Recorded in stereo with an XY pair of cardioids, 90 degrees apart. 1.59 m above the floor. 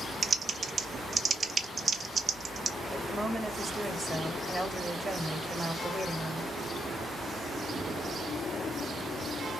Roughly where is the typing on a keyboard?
Ahead right.